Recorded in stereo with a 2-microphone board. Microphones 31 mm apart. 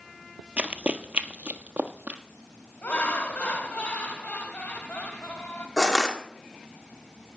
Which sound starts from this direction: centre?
Crushing, at 5.8 s.